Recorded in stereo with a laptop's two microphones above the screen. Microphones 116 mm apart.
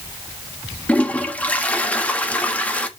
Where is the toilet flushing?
10° left (ahead or behind), 1.3 m.